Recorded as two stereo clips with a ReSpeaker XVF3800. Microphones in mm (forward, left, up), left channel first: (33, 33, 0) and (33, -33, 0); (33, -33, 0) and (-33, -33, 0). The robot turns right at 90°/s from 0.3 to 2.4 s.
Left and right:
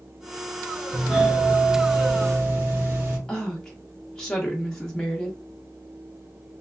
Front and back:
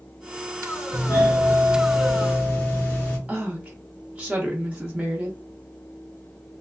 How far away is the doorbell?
About 1.3 m.